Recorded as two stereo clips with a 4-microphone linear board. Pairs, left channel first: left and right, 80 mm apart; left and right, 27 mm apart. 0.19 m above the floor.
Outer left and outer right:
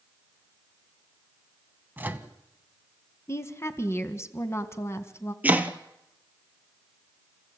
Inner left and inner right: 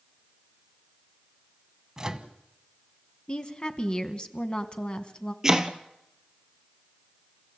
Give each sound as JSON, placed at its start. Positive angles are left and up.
{"t": 2.0, "sound": "a microwave", "side_deg": -20, "distance_m": 1.2}
{"t": 3.3, "sound": "a woman speaking", "side_deg": 35, "distance_m": 1.5}
{"t": 5.4, "sound": "chopping", "side_deg": -20, "distance_m": 1.3}